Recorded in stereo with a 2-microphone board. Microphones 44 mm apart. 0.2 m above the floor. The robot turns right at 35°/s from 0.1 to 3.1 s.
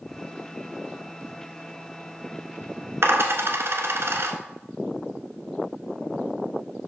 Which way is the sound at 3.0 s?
65° right (ahead or behind).